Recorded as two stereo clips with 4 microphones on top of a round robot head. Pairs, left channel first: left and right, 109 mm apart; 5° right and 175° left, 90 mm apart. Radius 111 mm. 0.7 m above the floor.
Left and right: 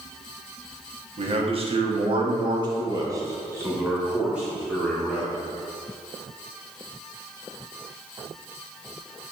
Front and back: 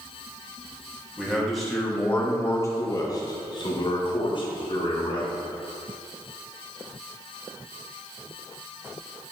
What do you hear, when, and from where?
1.2 s a man speaking: 100° right, 1.5 m; by 5.3 s straight ahead, 2 m